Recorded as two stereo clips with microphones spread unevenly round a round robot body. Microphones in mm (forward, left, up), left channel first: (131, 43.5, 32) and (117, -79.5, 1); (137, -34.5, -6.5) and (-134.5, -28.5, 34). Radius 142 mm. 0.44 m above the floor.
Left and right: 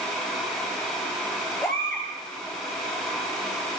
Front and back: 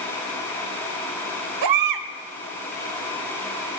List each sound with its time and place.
1.6 s a baby crying: 165° left, 1.2 m